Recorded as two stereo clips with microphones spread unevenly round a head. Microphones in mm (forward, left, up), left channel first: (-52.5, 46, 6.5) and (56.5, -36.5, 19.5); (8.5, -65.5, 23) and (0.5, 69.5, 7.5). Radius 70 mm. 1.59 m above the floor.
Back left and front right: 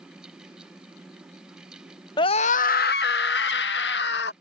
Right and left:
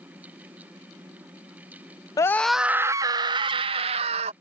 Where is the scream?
155° right; by 4.3 s 140° left.